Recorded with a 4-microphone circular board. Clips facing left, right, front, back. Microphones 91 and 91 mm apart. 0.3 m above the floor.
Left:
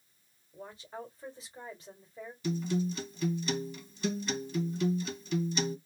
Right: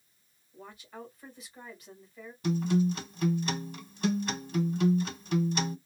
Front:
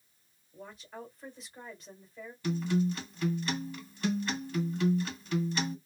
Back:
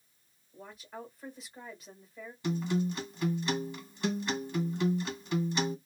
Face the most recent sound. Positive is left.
turn(degrees=-110)